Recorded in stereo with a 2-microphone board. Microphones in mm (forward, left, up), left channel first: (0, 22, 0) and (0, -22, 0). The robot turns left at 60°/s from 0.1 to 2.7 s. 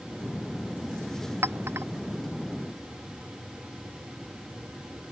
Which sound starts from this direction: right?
A clink, at 1.4 s.